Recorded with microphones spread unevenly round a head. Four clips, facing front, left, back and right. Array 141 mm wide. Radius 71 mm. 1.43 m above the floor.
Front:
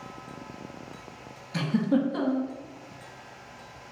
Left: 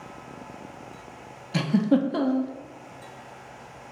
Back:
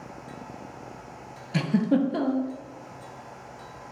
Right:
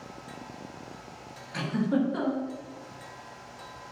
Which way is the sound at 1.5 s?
130° left.